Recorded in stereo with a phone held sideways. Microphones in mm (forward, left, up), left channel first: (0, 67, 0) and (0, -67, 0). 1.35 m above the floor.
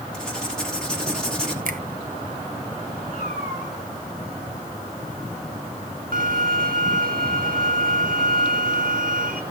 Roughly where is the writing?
Centre.